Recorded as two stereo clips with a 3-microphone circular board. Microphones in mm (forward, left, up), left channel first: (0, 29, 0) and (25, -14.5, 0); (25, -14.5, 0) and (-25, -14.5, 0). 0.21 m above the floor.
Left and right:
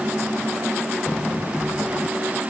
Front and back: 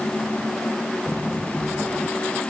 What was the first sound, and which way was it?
Only background noise.